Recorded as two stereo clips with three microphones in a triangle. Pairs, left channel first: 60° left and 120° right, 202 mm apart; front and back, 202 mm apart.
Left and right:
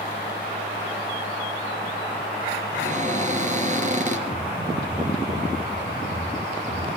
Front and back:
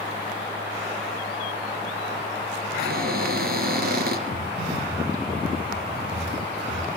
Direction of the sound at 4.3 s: 135° left.